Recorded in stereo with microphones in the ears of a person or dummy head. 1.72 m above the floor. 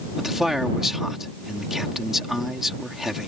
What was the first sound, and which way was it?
A man speaking, centre (ahead or behind).